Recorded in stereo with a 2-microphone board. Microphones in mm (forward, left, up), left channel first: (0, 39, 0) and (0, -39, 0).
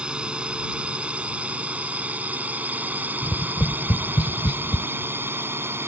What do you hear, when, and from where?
0.0 s a drone: 15° right (ahead or behind); by 5.9 s 30° right (ahead or behind)
3.2 s tapping: 85° left